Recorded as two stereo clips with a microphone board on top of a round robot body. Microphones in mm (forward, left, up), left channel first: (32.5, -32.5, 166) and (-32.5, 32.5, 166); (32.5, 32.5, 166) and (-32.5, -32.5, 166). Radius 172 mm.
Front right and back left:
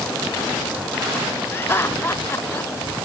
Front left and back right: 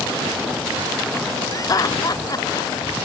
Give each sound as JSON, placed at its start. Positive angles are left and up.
{"t": 1.5, "sound": "laughter", "azimuth_deg": 15}